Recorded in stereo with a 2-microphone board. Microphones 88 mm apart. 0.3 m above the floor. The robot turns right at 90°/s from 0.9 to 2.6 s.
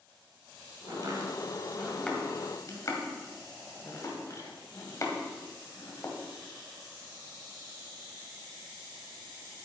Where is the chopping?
45° right (ahead or behind), 1.9 m; by 6.2 s 40° left (ahead or behind), 1.9 m.